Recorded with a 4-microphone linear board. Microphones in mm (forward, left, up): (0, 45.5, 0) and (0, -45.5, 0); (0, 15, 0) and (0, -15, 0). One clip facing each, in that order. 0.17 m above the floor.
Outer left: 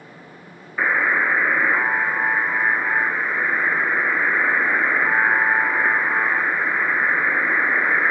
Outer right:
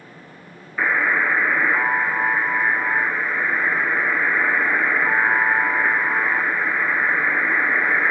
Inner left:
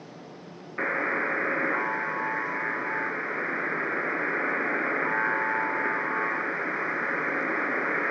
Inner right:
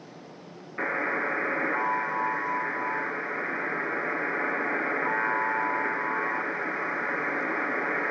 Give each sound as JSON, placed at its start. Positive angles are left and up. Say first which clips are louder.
{"t": 0.8, "sound": "a buzzer", "louder": "even, inner left 1 dB", "side_deg": 10, "distance_m": 0.8}